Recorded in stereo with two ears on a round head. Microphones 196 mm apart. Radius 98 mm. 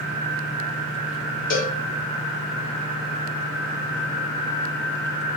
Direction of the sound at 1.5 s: 40° left (ahead or behind).